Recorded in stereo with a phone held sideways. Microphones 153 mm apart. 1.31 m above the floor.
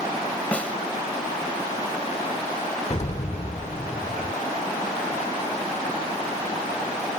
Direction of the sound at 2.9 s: 45° left (ahead or behind).